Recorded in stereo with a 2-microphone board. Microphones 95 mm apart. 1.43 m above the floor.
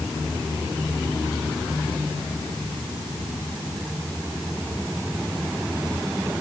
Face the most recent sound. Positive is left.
No sound to turn to.